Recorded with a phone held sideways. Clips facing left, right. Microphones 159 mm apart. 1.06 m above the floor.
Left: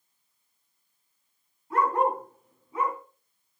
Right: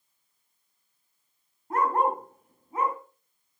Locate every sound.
1.7 s a dog barking: 55° right (ahead or behind), 3.5 m